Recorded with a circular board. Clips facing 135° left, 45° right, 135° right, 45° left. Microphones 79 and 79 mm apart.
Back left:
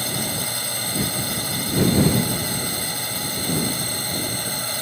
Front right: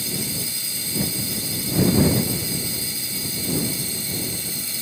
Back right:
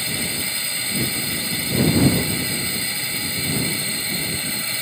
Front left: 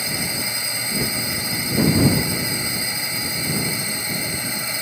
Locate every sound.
0.0 s a drone: 115° left